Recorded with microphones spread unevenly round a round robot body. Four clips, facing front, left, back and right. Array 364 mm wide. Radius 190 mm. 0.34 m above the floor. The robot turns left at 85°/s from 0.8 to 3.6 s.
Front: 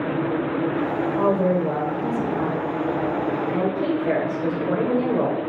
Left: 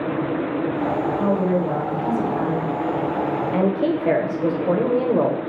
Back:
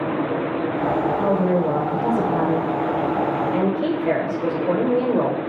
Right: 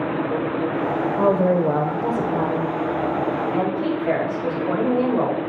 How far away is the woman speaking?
About 1.6 m.